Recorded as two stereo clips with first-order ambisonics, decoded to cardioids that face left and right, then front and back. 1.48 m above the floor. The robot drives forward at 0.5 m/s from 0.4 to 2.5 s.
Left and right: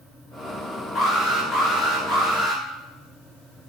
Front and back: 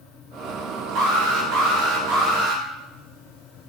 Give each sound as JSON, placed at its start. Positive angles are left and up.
{"t": 0.9, "sound": "an alarm", "azimuth_deg": 155, "distance_m": 3.0}